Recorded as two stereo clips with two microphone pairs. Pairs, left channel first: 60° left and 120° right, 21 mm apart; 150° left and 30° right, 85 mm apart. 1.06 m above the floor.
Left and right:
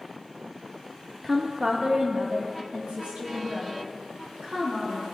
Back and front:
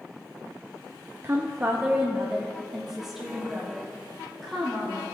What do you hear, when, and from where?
1.2 s a woman speaking: 50° right, 0.7 m; by 5.0 s 120° right, 4 m